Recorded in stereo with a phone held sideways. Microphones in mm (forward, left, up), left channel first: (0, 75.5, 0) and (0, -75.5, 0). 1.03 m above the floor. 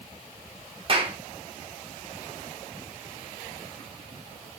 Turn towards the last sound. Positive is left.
turn(degrees=-40)  # may be behind; listen again after turning